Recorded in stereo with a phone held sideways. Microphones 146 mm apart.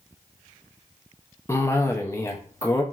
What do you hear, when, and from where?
1.5 s a cough: 20° left (ahead or behind), 0.5 m